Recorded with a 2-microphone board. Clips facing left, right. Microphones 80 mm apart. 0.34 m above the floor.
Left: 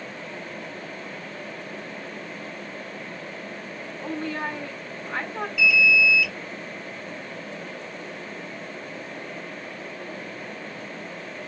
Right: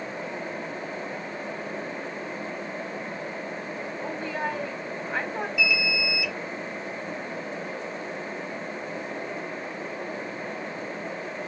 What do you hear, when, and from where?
4.0 s a woman speaking: 10° right (ahead or behind), 2.5 m
5.6 s an alarm: 20° right (ahead or behind), 3 m